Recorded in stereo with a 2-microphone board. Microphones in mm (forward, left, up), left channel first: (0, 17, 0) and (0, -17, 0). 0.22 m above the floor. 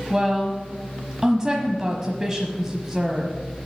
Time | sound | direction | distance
0.1 | a woman speaking | 20° right (ahead or behind) | 1.1 m